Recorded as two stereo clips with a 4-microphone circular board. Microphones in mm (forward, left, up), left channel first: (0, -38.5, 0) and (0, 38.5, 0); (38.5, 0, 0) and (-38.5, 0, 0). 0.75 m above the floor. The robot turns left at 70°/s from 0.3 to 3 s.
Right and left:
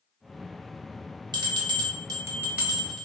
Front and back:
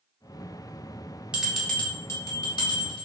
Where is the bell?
105° left, 0.7 m; by 3.1 s 15° right, 0.7 m.